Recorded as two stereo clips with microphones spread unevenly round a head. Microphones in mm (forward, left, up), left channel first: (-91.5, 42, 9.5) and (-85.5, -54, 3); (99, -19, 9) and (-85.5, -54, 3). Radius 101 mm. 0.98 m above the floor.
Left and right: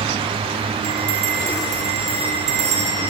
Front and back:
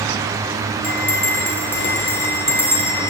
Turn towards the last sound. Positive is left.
turn(degrees=-70)